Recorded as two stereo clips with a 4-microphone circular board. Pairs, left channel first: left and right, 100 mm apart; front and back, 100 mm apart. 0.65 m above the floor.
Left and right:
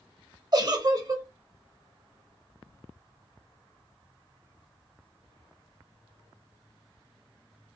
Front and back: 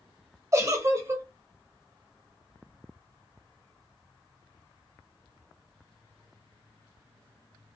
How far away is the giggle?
About 0.6 m.